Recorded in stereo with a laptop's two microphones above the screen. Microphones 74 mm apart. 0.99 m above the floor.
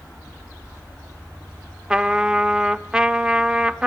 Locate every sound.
1.9 s a trumpet: 10° right (ahead or behind), 0.6 m